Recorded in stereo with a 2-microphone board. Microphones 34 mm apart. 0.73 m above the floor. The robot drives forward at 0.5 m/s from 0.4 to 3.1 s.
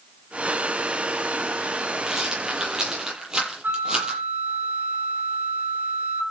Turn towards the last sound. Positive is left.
turn(degrees=-55)  # may be behind; listen again after turning